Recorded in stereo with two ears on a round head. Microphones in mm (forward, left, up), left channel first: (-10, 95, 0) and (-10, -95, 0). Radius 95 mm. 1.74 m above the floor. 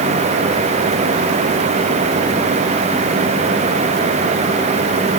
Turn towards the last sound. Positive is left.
No sound to turn to.